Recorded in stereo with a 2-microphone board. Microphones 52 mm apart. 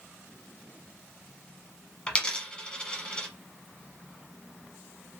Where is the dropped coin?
20° left (ahead or behind), 0.9 m.